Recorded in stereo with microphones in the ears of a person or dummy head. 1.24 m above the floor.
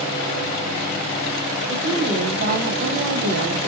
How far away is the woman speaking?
About 0.8 m.